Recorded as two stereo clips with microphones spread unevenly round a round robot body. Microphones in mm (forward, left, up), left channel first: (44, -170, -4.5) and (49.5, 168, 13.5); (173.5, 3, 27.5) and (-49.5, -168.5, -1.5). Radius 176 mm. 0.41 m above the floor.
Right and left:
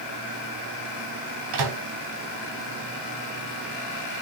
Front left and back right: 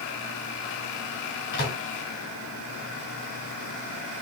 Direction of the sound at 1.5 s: 95° left.